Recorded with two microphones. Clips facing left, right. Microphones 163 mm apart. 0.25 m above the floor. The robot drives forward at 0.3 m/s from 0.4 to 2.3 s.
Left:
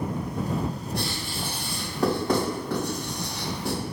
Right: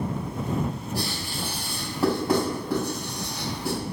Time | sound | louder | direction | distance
0.9 | writing | even | 5° right (ahead or behind) | 1.7 m